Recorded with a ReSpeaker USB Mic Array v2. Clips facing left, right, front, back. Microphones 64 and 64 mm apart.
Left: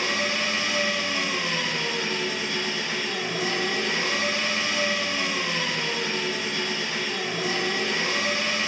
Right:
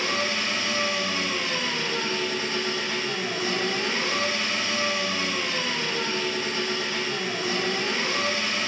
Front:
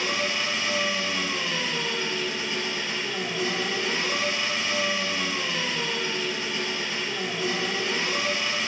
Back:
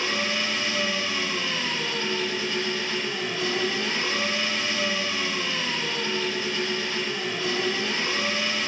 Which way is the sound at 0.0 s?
70° left.